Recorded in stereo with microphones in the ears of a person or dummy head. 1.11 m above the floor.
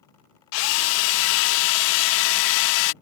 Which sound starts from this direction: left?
A drill, at 0.5 s.